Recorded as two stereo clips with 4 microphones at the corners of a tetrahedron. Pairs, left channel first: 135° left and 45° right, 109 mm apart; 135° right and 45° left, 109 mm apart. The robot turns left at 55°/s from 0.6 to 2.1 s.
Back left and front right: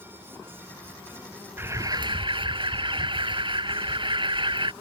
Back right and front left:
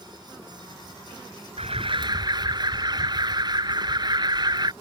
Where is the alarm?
25° left; by 4.7 s 5° right.